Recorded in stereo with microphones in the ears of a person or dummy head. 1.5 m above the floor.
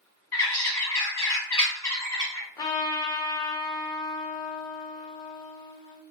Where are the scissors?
No scissors in this recording.